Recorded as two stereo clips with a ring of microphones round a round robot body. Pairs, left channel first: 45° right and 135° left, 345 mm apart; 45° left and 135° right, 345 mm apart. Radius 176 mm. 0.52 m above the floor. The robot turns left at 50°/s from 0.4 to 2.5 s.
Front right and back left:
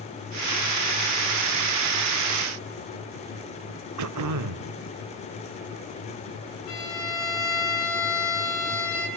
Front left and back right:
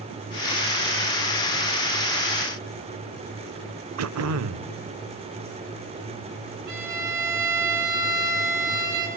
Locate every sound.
4.0 s throat clearing: 175° left, 0.9 m
6.7 s a violin: 95° right, 8 m